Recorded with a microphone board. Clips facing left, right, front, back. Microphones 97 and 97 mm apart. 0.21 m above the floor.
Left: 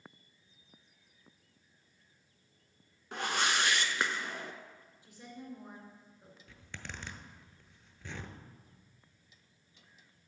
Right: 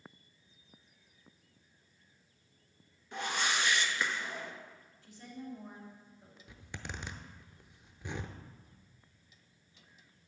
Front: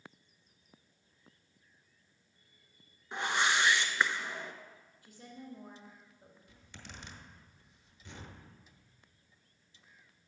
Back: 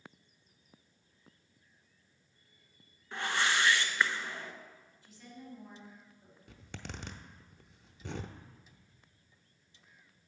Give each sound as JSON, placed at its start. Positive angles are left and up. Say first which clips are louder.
{"t": 3.1, "sound": "a whoosh", "louder": "left 2 dB, front 1 dB", "azimuth_deg": 70, "distance_m": 0.7}
{"t": 5.0, "sound": "a woman speaking", "louder": "right 2 dB, front 1 dB", "azimuth_deg": 20, "distance_m": 2.5}
{"t": 6.5, "sound": "a zipper", "louder": "right 2 dB, back 7 dB", "azimuth_deg": -165, "distance_m": 0.6}